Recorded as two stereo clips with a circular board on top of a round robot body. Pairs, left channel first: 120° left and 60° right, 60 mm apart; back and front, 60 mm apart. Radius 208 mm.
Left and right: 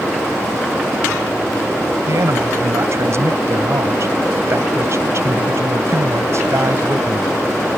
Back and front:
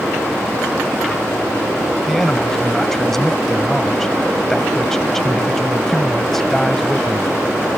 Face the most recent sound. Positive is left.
turn(degrees=-95)